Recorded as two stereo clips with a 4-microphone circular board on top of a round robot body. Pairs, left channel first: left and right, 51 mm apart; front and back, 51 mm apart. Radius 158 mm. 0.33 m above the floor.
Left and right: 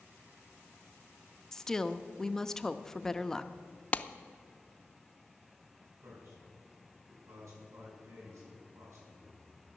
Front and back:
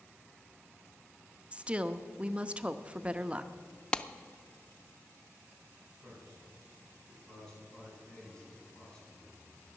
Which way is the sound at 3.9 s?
55° left.